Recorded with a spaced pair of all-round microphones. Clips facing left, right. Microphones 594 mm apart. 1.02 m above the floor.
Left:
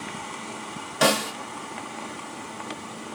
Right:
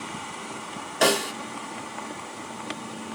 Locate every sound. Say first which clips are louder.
1.0 s a snare drum: even; 30° left (ahead or behind), 0.9 m